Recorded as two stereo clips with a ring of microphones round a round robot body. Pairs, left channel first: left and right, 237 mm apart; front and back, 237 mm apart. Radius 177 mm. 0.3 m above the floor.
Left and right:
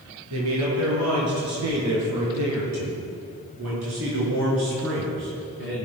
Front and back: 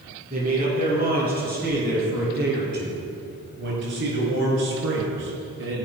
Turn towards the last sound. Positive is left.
turn(degrees=-145)